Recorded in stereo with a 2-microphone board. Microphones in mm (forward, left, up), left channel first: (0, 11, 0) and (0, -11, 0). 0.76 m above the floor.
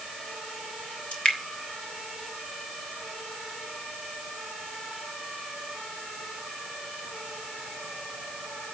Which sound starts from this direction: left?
Dripping, at 1.1 s.